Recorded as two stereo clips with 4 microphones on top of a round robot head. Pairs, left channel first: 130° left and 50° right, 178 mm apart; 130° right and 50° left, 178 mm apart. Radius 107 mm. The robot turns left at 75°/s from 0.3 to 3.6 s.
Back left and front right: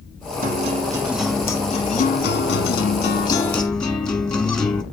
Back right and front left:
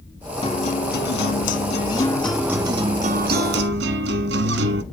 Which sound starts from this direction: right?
A guitar, at 0.4 s.